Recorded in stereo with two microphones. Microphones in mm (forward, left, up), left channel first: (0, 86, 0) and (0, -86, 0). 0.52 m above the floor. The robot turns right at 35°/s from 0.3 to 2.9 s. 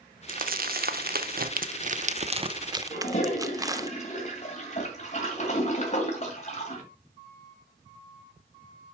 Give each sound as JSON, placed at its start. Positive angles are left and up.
{"t": 0.3, "sound": "crumpling", "side_deg": -55, "distance_m": 0.6}
{"t": 2.9, "sound": "a toilet flushing", "side_deg": 45, "distance_m": 2.5}